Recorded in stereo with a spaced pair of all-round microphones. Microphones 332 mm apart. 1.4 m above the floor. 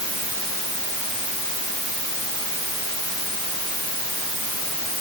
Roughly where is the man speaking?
I don't hear a man speaking.